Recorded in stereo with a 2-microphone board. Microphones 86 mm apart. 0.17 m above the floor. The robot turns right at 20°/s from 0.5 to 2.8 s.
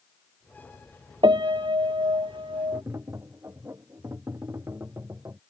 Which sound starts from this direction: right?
Tapping, at 2.7 s.